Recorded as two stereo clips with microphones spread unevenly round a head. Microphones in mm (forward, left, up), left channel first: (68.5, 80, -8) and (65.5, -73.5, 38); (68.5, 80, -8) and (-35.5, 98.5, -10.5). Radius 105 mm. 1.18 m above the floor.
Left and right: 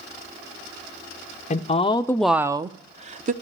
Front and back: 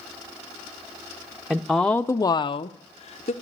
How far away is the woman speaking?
About 0.8 m.